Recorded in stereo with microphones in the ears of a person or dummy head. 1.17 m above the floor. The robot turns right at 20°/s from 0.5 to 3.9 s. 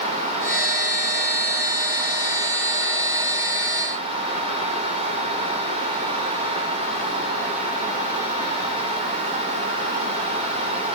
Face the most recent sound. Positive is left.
No sound to turn to.